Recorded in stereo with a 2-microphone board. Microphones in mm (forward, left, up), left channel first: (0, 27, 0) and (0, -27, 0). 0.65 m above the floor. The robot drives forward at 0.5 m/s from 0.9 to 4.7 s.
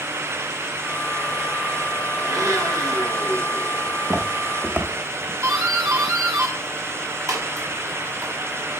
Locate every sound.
2.2 s a blender: 75° right (ahead or behind), 5 m; by 3.7 s 80° right, 5 m
3.9 s footsteps: 35° right (ahead or behind), 3 m; by 5.3 s 25° right (ahead or behind), 1.5 m
5.4 s a doorbell: 70° right (ahead or behind), 6 m